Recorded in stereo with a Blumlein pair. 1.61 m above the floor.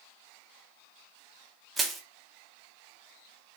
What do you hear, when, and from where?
1.8 s crushing: 10° right, 0.7 m